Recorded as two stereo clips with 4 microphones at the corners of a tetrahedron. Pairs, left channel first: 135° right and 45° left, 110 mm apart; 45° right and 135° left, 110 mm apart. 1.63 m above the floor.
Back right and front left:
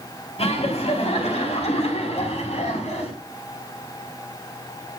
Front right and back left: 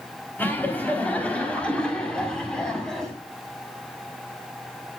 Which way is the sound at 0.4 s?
115° right.